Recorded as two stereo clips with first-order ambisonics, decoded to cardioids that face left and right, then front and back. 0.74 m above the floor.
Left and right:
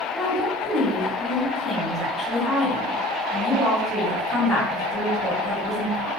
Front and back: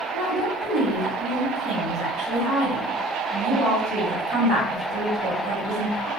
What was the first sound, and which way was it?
A woman speaking, 170° left.